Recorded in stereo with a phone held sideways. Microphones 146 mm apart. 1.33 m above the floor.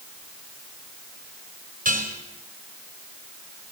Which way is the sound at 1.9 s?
70° right (ahead or behind).